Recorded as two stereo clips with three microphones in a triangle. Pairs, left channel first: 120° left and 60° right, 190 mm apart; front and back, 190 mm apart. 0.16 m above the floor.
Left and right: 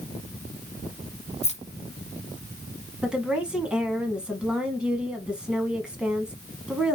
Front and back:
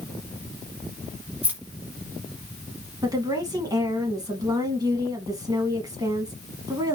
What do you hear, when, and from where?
1.4 s keys jangling: 105° left, 1.1 m
3.0 s a woman speaking: 140° right, 1.3 m